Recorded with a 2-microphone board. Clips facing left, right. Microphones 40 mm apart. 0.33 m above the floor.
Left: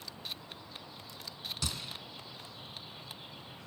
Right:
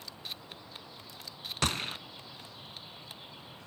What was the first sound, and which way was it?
A gunshot, 55° right (ahead or behind).